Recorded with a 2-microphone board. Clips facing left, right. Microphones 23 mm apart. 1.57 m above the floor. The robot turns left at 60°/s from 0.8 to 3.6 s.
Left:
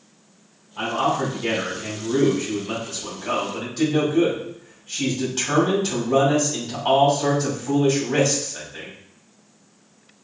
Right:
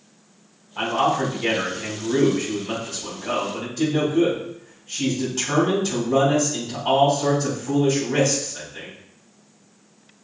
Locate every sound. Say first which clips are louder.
0.8 s a man speaking: right 1 dB; 55° right, 2.5 m; by 8.9 s 135° left, 2.5 m